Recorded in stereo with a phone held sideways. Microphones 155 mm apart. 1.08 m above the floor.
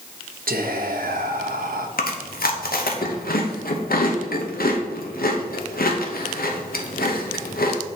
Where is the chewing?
75° left (ahead or behind), 0.9 m.